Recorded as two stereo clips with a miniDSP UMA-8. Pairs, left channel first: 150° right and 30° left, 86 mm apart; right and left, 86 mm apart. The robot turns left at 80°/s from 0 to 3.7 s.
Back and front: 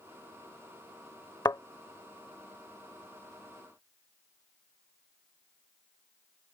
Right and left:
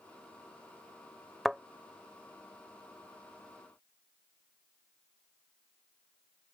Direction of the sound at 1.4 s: Straight behind.